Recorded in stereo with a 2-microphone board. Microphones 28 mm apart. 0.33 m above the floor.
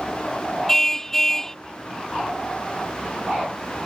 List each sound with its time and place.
0.7 s a car horn: 10° left (ahead or behind)